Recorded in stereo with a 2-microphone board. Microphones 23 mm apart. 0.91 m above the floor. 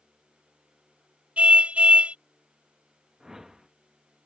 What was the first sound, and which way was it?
A car horn, 65° right (ahead or behind).